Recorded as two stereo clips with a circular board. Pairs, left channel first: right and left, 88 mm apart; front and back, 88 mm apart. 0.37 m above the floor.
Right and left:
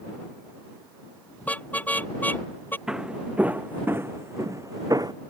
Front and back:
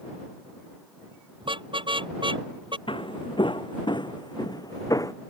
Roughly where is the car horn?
Behind.